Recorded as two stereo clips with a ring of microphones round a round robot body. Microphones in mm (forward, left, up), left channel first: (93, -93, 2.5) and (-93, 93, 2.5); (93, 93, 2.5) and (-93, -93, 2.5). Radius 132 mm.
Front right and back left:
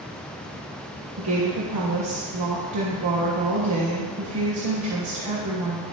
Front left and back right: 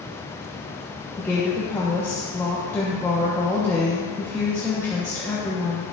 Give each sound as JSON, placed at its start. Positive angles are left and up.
{"t": 1.2, "sound": "a woman speaking", "azimuth_deg": 125, "distance_m": 1.2}